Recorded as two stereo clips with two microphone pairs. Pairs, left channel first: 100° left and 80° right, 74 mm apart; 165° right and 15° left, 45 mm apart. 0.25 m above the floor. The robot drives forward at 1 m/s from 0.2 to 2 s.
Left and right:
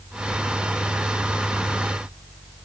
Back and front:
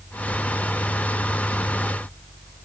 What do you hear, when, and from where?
Only background noise.